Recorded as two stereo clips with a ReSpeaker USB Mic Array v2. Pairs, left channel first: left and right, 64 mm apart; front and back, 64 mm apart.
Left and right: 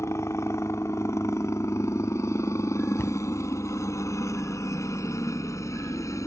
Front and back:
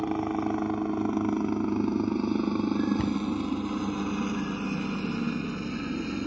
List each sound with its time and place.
0.0 s a helicopter: 95° left
3.0 s a cupboard door: 75° left